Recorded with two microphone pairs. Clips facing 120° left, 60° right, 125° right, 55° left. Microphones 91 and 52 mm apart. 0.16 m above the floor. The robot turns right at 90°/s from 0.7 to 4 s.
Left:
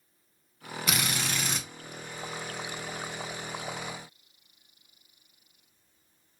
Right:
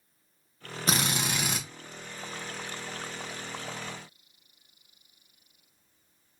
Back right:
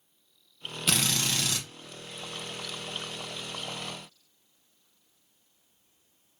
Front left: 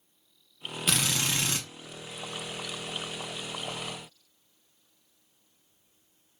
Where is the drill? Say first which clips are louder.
Right 3 dB, even; 40° right, 0.8 m; by 1.6 s 30° left, 0.8 m.